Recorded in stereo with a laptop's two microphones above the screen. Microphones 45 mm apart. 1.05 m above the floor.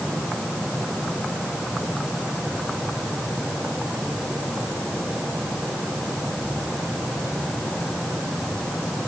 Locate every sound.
Only background noise.